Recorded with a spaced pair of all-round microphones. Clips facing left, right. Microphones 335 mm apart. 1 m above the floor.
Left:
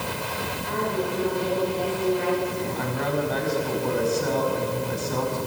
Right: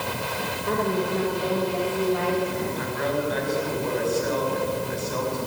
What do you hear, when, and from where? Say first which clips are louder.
0.7 s a woman speaking: right 3 dB; 85° right, 4 m; by 2.6 s 75° right (ahead or behind), 5.5 m
2.8 s a woman speaking: even; 55° left (ahead or behind), 5.5 m